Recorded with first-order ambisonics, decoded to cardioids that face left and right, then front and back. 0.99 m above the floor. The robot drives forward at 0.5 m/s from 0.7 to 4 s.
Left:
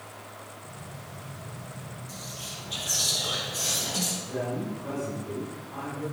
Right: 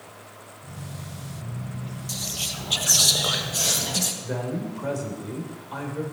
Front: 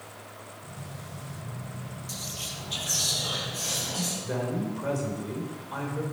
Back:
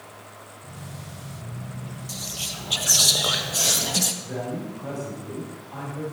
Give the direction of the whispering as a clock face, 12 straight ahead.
3 o'clock.